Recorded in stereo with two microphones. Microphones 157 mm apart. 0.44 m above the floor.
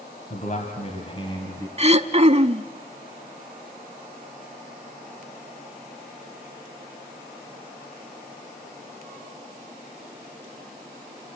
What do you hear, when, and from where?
0.3 s a man speaking: 55° left (ahead or behind), 2.5 m; by 1.7 s 20° left (ahead or behind), 2.5 m
1.8 s throat clearing: 40° right (ahead or behind), 0.6 m